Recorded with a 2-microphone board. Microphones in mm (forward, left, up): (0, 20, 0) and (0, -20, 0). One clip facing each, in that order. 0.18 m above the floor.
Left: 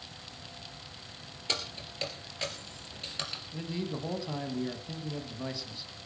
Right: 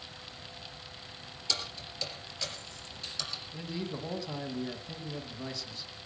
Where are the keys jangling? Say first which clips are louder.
Left 1 dB; 35° left (ahead or behind), 3 m.